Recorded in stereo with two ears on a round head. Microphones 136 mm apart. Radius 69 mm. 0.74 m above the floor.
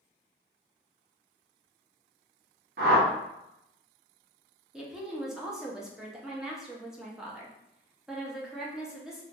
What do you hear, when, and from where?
2.8 s a whoosh: 70° right (ahead or behind), 0.6 m
4.7 s a woman speaking: 5° right (ahead or behind), 0.6 m